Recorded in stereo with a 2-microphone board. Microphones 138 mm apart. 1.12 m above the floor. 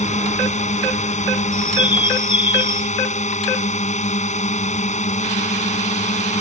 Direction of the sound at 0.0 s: 60° left (ahead or behind).